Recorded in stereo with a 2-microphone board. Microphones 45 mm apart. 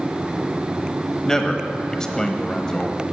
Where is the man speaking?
15° left (ahead or behind), 1.0 m.